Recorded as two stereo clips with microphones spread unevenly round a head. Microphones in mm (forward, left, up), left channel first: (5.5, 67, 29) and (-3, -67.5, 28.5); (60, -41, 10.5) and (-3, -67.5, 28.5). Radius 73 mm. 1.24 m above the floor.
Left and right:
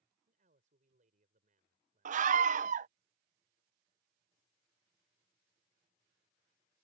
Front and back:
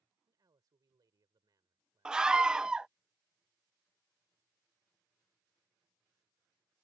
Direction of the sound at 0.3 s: 130° right.